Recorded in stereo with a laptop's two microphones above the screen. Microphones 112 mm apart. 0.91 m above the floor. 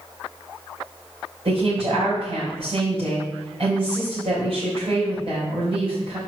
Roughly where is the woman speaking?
Right.